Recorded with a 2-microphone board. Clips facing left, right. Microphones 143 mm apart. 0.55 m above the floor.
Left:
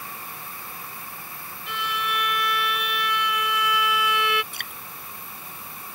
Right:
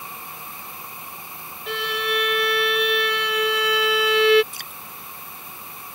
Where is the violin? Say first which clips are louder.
Right 4 dB; 65° right (ahead or behind).